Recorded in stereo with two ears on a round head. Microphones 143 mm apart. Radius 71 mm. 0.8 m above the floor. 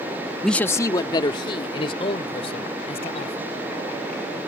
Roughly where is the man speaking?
Centre.